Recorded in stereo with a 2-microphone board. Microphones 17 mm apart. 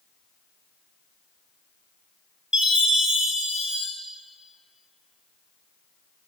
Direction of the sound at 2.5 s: 80° right.